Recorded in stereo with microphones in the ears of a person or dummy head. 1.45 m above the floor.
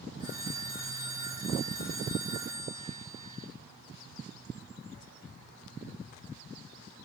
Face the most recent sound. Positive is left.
turn(degrees=-20)  # may be behind; listen again after turning